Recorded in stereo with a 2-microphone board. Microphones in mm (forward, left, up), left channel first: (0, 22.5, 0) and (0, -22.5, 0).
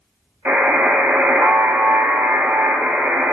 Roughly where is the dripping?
No dripping in this recording.